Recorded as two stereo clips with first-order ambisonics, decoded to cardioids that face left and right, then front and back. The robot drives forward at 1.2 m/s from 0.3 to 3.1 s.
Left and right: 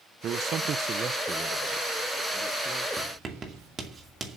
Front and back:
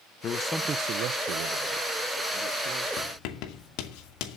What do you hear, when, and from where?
0.2 s a man speaking: 45° right, 0.6 m; by 2.9 s 175° right, 3 m
3.0 s writing: 20° right, 2.5 m